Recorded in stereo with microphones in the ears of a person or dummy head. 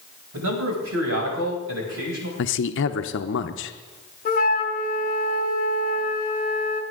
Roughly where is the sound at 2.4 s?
Left.